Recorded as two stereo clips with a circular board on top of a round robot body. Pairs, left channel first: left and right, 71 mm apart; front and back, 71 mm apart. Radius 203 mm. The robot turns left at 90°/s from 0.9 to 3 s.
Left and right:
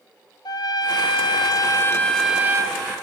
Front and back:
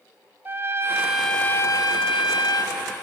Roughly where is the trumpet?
Behind left.